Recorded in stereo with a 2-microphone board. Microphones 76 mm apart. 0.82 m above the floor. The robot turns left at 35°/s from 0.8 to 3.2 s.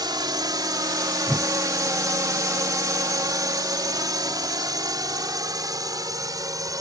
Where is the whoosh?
5° right (ahead or behind); by 1.5 s centre (ahead or behind).